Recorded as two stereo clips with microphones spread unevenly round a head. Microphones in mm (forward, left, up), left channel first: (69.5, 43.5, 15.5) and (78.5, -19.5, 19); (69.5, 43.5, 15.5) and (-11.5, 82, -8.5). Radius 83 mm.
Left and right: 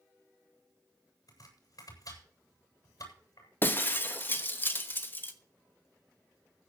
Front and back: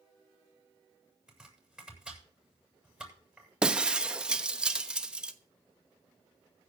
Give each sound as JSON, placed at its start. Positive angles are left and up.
{"t": 1.3, "sound": "chopping", "azimuth_deg": 75, "distance_m": 9.0}
{"t": 3.6, "sound": "breaking glass", "azimuth_deg": 60, "distance_m": 1.0}